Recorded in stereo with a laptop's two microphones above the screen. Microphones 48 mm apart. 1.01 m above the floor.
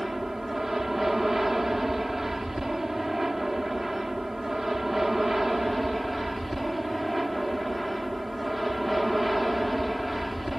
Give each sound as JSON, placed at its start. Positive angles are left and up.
{"t": 0.0, "sound": "an aircraft", "side_deg": -5}